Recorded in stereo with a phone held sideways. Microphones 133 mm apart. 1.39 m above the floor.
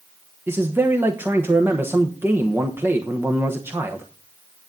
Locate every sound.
0.5 s a man speaking: 20° right (ahead or behind), 1.0 m